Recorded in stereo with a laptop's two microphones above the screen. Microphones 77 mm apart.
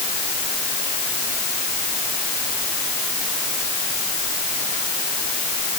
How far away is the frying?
I don't hear frying.